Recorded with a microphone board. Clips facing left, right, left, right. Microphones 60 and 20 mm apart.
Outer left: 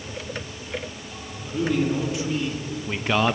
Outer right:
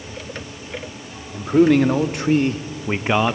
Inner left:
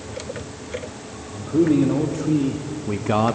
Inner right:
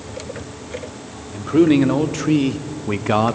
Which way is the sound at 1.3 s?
70° right (ahead or behind).